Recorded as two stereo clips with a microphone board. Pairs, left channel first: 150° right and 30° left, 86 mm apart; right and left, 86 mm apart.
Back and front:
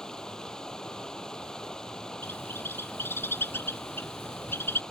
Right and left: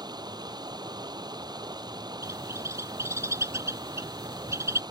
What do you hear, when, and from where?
0.0 s running water: 130° left
2.2 s a bird: 145° left